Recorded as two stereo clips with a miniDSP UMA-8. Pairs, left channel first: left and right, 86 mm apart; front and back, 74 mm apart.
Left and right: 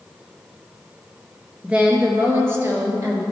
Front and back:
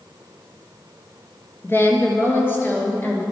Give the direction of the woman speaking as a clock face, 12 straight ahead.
1 o'clock.